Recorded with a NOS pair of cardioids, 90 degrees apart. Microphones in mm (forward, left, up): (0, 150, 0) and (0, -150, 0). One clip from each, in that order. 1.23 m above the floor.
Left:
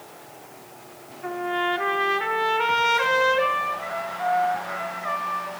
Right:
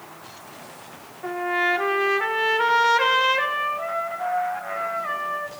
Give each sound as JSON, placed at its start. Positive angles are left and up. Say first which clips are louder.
{"t": 1.2, "sound": "a trumpet", "louder": "right 3 dB", "azimuth_deg": -15, "distance_m": 1.3}